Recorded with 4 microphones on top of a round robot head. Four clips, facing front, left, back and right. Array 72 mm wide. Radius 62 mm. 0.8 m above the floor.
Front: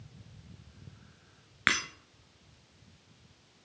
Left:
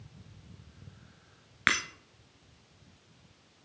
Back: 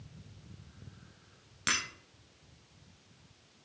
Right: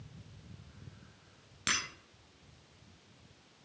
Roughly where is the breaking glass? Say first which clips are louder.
Left 8 dB, front 5 dB; ahead left.